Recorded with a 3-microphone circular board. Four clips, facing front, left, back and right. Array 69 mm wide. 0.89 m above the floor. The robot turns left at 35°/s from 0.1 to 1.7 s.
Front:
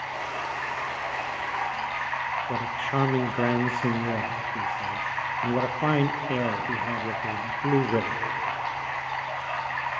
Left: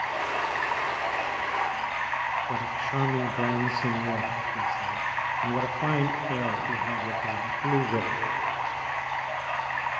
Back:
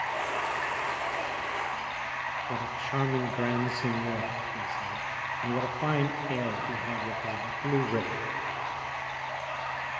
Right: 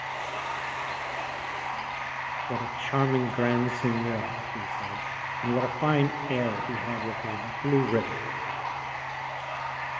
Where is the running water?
110° left, 5.5 m; by 10.0 s 55° left, 5.5 m.